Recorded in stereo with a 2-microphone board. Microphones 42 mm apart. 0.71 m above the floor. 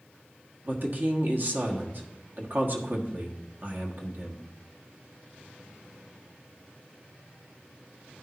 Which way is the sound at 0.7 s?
50° right (ahead or behind).